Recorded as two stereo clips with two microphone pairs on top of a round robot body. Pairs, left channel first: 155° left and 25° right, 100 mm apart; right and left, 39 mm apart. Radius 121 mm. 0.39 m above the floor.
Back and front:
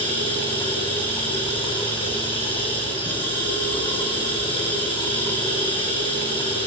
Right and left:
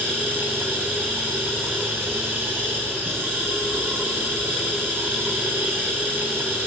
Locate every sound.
0.0 s running water: 115° left, 8 m